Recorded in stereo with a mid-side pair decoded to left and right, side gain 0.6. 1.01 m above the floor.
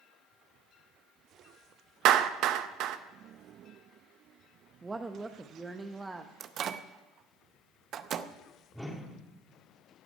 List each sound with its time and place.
2.0 s a clap: 65° right, 0.7 m
4.8 s a woman speaking: 20° right, 0.8 m
6.4 s a microwave: 50° right, 0.6 m
8.7 s a whoosh: straight ahead, 2.0 m